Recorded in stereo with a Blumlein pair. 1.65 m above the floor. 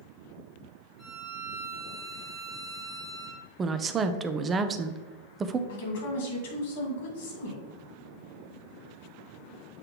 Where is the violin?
Straight ahead, 1.4 m.